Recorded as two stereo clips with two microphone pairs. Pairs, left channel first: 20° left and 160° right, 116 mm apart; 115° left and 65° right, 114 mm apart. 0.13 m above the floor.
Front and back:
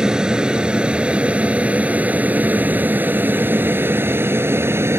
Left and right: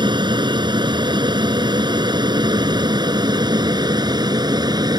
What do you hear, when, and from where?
0.0 s an aircraft: 75° right; by 5.0 s 100° right